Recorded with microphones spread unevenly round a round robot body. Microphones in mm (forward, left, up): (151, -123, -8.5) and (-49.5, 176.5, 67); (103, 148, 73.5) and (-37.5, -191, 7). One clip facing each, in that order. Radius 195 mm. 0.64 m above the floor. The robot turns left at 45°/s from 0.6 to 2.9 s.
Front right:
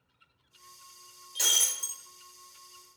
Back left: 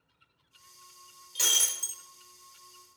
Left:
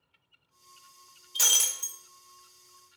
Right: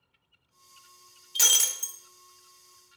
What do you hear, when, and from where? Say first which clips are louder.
1.4 s breaking glass: even, right 2 dB; 150° right, 0.5 m; by 2.0 s 175° right, 0.5 m